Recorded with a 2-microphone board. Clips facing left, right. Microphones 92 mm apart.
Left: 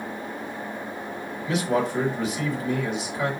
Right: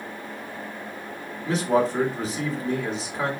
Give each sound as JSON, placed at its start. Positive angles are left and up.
{"t": 1.5, "sound": "a man speaking", "side_deg": -35, "distance_m": 1.2}